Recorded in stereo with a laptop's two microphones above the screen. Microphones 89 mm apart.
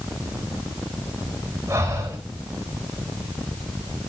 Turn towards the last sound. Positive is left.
turn(degrees=-35)  # may be behind; listen again after turning